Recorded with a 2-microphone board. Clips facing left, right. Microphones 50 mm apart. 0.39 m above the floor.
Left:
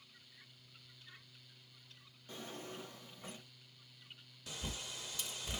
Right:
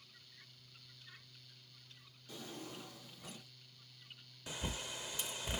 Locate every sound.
2.3 s a drawer: 30° left (ahead or behind), 1.1 m
4.5 s a bird: 20° right (ahead or behind), 0.5 m